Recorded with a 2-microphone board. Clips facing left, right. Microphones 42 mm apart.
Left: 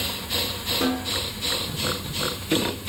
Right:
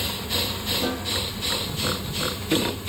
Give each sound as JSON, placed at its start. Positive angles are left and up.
{"t": 0.8, "sound": "a snare drum", "side_deg": 85, "distance_m": 2.5}